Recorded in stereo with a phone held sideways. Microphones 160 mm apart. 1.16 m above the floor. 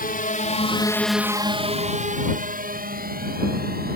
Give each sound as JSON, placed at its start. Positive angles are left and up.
{"t": 0.0, "sound": "a drone", "side_deg": 65}